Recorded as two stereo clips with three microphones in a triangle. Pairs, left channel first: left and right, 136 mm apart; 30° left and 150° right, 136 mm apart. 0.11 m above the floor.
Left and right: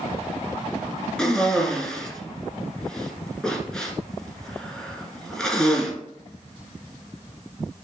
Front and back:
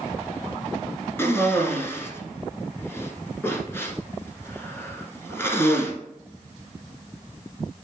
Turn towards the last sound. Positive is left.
turn(degrees=15)